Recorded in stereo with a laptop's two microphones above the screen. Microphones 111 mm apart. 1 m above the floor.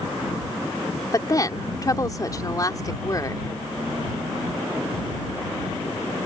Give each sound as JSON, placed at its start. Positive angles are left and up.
{"t": 1.1, "sound": "a woman speaking", "side_deg": 35}